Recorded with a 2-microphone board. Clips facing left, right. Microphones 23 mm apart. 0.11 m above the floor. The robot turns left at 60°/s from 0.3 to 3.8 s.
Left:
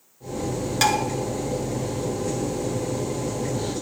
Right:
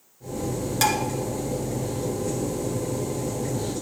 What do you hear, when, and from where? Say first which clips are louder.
0.8 s dishes clattering: left 2 dB; 15° left (ahead or behind), 1.0 m; by 1.0 s 10° left (ahead or behind), 1.0 m